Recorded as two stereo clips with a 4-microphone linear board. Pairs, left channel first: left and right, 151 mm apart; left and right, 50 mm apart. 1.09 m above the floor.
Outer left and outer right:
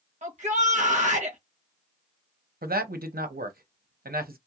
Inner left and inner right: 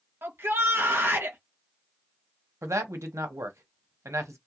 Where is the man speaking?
80° right, 0.7 m.